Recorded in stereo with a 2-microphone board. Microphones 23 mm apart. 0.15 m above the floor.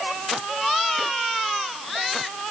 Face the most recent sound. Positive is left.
No sound to turn to.